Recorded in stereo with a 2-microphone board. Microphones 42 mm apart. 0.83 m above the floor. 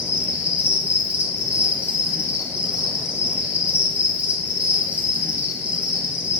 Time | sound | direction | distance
0.0 | an insect | 35° right (ahead or behind) | 1.2 m